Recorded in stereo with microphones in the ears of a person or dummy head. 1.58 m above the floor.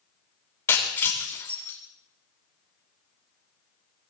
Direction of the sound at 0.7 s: 20° left (ahead or behind).